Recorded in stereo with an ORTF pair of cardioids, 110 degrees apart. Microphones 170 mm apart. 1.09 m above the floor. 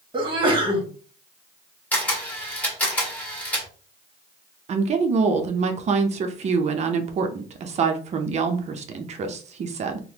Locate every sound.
0.1 s a sneeze: 30° right, 1.4 m
1.9 s a camera shutter: 10° left, 1.6 m
4.7 s a woman speaking: 40° right, 0.6 m